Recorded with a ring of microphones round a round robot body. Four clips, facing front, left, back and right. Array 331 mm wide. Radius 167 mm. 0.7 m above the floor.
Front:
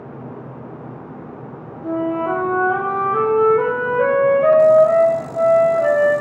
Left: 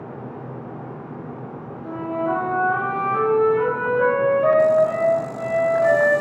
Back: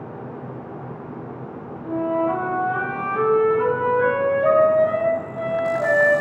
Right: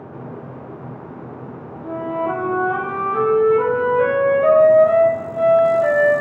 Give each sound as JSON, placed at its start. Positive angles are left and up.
{"t": 1.8, "sound": "a flute", "azimuth_deg": -15, "distance_m": 4.0}